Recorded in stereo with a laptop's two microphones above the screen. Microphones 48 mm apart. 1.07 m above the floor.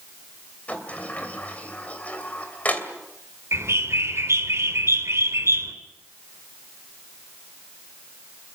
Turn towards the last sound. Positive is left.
turn(degrees=-65)  # may be behind; listen again after turning